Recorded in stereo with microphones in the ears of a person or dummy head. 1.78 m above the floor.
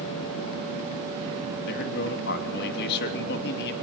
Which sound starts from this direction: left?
A man speaking, at 1.7 s.